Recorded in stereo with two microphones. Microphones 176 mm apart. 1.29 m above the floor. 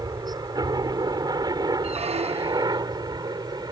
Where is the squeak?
35° right (ahead or behind).